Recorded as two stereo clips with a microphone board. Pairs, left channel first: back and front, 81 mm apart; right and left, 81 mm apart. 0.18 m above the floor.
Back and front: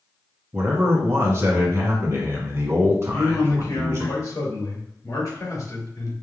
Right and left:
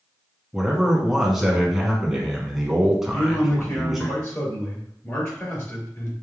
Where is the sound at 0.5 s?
5° left, 1.4 m.